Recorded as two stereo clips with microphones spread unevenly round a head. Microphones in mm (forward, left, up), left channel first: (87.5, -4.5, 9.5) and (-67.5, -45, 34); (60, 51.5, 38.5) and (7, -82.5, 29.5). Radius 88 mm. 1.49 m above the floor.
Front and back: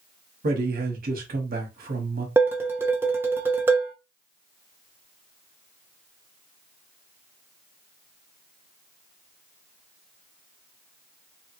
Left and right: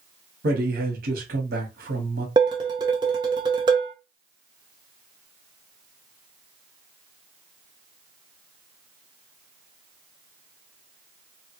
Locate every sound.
0.4 s a man speaking: 135° right, 1.0 m
2.4 s dishes clattering: 135° right, 0.5 m